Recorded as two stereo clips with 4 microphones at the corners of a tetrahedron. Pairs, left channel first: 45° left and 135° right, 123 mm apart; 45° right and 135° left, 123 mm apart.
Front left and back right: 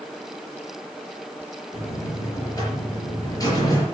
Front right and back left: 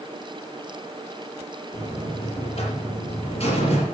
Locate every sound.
1.7 s a buzzer: 10° right, 5 m